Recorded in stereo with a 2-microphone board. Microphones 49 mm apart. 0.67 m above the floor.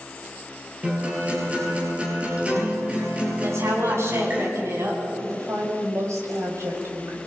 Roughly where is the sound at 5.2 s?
Right.